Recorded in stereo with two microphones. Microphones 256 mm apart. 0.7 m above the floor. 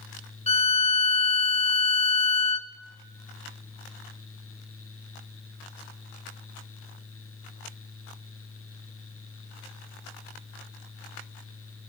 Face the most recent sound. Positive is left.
turn(degrees=25)  # may be behind; listen again after turning